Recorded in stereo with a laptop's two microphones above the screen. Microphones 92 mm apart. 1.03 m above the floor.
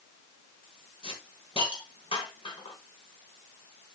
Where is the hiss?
80° left, 3.5 m.